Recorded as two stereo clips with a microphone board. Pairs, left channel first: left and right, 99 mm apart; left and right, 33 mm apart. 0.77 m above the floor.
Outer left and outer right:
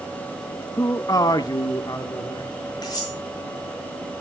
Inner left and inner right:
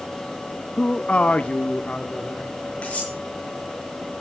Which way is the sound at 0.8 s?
25° left (ahead or behind).